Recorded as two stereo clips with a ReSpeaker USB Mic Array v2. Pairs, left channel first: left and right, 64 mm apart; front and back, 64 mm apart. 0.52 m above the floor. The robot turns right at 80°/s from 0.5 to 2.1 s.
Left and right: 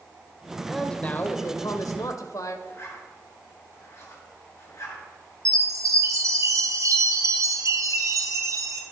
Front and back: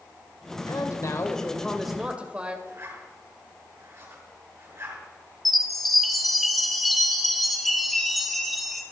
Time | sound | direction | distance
0.7 | a man speaking | 5° right | 1.7 m
2.7 | a zipper | 135° left | 6.5 m
5.5 | a chime | 90° right | 2 m